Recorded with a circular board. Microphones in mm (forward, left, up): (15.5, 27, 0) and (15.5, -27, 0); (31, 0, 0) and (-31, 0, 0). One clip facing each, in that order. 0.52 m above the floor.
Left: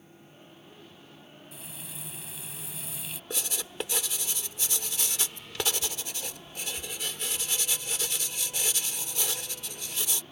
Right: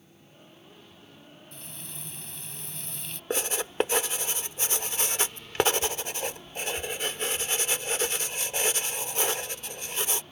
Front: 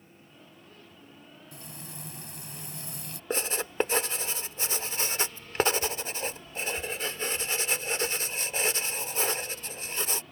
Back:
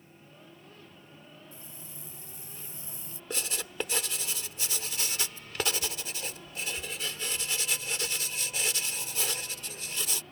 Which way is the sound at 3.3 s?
50° right.